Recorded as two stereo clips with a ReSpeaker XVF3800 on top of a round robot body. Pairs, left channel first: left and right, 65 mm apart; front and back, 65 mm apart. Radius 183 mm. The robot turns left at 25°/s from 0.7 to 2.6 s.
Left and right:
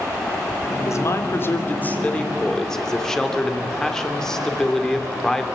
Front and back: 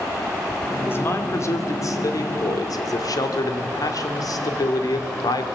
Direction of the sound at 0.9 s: 55° left.